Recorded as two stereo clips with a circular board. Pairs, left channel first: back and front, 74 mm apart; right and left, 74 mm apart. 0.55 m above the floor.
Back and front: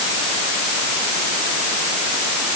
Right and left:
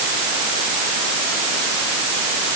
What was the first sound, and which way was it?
Only background noise.